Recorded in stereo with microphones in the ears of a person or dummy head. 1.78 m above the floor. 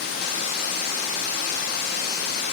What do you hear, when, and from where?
0.0 s running water: 50° left (ahead or behind), 1.3 m